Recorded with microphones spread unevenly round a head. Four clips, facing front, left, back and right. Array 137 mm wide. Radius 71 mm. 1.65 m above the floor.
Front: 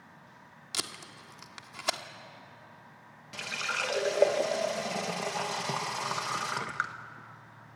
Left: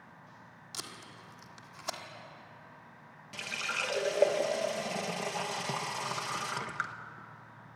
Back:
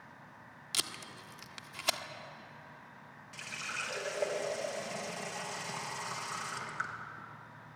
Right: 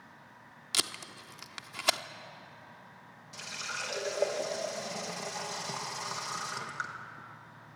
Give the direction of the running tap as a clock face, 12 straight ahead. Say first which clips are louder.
Left 3 dB, front 8 dB; 11 o'clock.